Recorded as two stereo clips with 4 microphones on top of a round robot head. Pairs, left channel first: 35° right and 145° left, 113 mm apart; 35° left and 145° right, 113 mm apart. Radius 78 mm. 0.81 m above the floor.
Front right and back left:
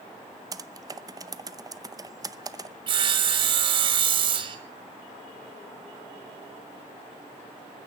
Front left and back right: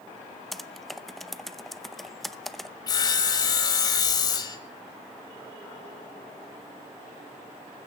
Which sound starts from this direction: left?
Sawing, at 2.9 s.